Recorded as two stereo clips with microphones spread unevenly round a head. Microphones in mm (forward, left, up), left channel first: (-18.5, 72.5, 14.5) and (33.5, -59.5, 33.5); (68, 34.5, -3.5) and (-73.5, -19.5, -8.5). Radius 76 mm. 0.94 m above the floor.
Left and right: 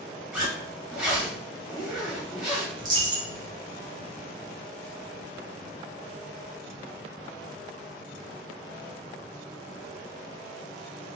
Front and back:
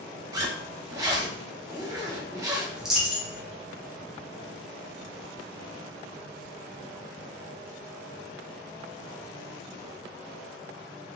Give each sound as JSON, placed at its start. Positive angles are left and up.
{"t": 0.3, "sound": "a zipper", "azimuth_deg": -125, "distance_m": 0.7}
{"t": 2.8, "sound": "a dropped coin", "azimuth_deg": -70, "distance_m": 0.8}